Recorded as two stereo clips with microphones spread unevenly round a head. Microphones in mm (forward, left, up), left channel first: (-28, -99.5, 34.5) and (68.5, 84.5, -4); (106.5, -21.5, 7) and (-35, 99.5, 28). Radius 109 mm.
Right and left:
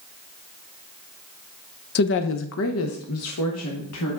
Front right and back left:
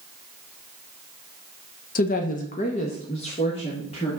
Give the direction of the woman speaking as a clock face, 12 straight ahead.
2 o'clock.